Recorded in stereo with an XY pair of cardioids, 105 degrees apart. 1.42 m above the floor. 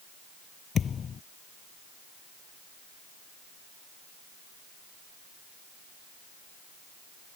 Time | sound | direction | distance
0.8 | a thud | 45° left | ?